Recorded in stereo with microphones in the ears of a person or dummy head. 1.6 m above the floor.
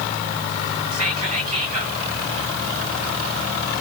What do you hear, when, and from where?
0.9 s whispering: 45° right (ahead or behind), 1.1 m